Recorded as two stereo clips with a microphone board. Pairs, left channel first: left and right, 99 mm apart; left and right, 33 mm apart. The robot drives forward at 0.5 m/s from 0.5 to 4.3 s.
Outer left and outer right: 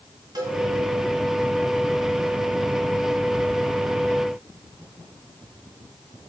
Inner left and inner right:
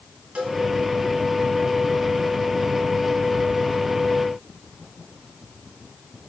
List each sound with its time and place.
0.3 s a cowbell: 45° right (ahead or behind), 1.8 m